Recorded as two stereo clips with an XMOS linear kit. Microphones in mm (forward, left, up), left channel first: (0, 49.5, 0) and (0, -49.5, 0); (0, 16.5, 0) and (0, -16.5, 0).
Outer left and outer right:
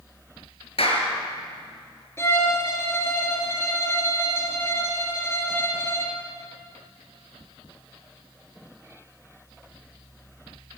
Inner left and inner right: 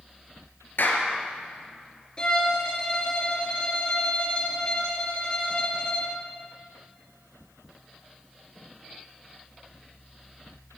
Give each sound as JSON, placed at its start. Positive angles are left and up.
{"t": 0.8, "sound": "a clap", "side_deg": 75, "distance_m": 4.5}
{"t": 2.2, "sound": "a violin", "side_deg": 25, "distance_m": 3.5}